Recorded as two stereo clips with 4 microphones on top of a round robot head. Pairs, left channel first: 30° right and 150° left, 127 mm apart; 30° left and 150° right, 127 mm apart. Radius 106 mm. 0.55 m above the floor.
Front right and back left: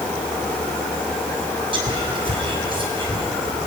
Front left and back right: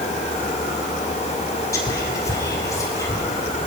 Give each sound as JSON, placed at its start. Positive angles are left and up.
{"t": 1.7, "sound": "whispering", "azimuth_deg": 100, "distance_m": 5.5}